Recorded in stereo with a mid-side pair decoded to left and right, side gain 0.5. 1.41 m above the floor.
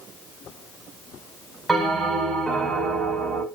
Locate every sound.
1.7 s a bell: 25° right, 6.5 m